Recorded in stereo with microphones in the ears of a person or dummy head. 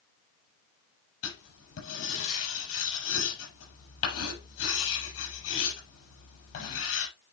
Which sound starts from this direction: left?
Writing, at 1.2 s.